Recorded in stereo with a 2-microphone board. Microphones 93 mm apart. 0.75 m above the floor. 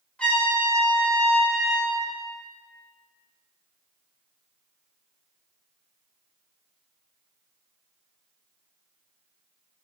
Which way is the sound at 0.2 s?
10° left (ahead or behind).